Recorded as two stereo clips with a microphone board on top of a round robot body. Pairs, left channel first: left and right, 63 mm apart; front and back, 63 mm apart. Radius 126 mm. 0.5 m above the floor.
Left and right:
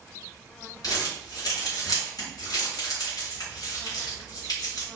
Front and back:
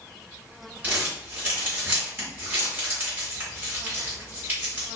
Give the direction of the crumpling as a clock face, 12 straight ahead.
8 o'clock.